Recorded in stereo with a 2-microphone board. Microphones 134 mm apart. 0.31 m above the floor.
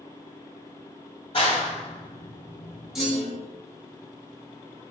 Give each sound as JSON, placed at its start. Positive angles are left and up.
{"t": 1.3, "sound": "a clap", "side_deg": 45, "distance_m": 1.4}
{"t": 3.0, "sound": "a clunk", "side_deg": -5, "distance_m": 1.7}